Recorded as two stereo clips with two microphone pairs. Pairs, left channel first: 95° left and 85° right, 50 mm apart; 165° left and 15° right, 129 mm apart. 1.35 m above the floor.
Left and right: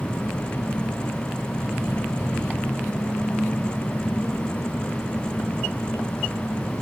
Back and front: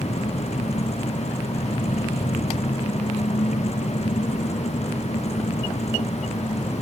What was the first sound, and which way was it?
An engine running, 140° left.